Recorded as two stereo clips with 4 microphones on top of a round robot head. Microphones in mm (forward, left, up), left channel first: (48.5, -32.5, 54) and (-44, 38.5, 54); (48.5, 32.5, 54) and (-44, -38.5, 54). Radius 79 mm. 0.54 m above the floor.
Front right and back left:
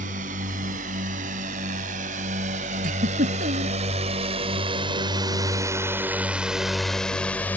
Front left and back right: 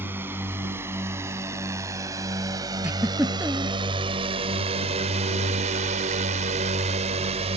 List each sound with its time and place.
0.0 s a drone: 145° left; by 7.6 s 110° right
2.8 s a giggle: 140° left